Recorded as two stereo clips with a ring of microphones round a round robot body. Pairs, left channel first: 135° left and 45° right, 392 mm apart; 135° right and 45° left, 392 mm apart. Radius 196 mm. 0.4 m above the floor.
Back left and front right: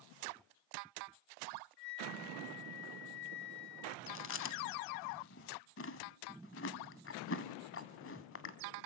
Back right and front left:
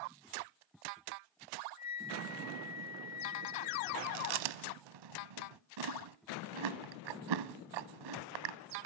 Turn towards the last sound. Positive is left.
turn(degrees=75)